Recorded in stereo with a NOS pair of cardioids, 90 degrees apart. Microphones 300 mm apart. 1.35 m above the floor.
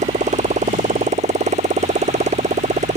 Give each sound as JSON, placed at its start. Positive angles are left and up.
{"t": 0.0, "sound": "a motorcycle", "azimuth_deg": -20}